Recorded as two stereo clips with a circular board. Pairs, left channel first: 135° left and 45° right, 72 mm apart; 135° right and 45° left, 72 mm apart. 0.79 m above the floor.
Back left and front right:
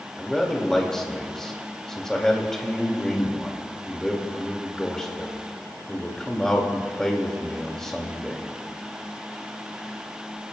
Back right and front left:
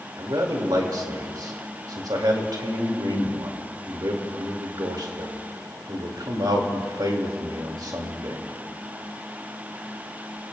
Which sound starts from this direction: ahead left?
A man speaking, at 0.2 s.